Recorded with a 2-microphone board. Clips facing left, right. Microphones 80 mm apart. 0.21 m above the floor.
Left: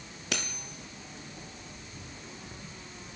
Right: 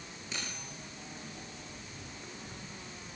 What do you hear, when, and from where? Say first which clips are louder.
0.3 s cutlery clinking: left 6 dB; 75° left (ahead or behind), 2.5 m